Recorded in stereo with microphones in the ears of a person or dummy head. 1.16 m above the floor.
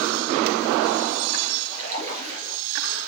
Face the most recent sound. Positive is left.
turn(degrees=-40)  # may be behind; listen again after turning